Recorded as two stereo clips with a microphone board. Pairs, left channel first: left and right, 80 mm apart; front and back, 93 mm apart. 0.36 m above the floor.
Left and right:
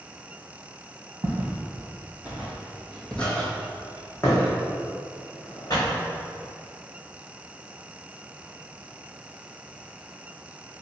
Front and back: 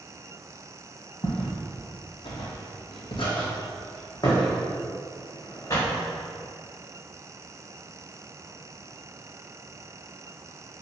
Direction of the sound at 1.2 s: 40° right.